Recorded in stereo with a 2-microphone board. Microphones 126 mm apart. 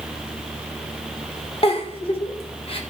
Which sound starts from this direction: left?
A giggle, at 1.6 s.